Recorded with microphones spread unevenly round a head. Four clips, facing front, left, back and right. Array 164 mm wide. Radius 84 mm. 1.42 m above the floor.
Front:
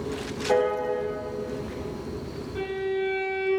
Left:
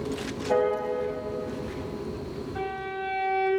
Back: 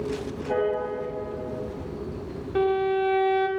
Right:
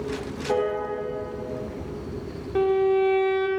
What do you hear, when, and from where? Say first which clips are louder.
0.5 s a piano: even, front 2 dB; 30° right, 5 m
2.5 s a violin: right 15 dB, back 6 dB; 120° right, 2 m